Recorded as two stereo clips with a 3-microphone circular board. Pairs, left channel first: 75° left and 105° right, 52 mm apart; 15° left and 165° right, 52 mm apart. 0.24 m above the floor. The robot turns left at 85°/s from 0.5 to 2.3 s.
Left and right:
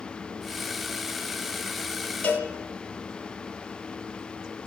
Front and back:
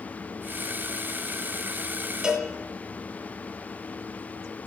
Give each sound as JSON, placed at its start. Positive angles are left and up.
{"t": 2.2, "sound": "a cowbell", "azimuth_deg": 125, "distance_m": 1.3}